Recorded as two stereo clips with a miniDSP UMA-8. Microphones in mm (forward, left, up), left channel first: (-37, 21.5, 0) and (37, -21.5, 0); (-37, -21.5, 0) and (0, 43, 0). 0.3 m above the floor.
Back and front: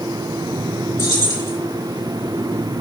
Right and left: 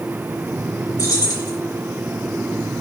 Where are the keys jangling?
150° right, 2.5 m.